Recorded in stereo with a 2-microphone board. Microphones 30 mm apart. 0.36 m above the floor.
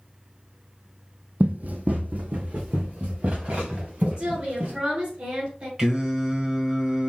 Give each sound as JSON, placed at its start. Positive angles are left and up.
{"t": 1.4, "sound": "running footsteps", "side_deg": -55, "distance_m": 0.6}
{"t": 4.2, "sound": "a woman speaking", "side_deg": -55, "distance_m": 2.5}
{"t": 5.8, "sound": "singing", "side_deg": -25, "distance_m": 1.4}